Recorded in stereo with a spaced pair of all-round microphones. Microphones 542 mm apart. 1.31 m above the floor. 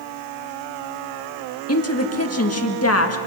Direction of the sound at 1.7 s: 25° left (ahead or behind).